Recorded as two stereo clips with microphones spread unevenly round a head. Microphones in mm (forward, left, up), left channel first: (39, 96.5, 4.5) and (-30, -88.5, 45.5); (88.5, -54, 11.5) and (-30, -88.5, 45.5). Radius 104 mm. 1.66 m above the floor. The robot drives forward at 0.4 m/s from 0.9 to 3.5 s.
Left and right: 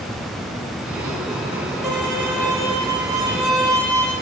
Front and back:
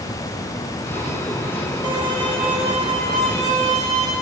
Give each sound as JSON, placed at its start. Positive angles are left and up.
{"t": 1.8, "sound": "a violin", "azimuth_deg": 170, "distance_m": 1.7}